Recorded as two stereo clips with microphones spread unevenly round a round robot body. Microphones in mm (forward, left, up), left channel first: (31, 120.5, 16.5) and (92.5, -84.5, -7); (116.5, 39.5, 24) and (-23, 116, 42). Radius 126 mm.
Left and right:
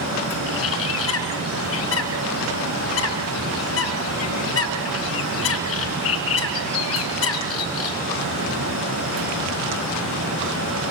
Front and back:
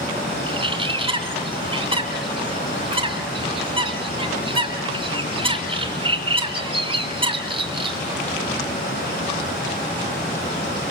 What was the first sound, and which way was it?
A bird, 95° left.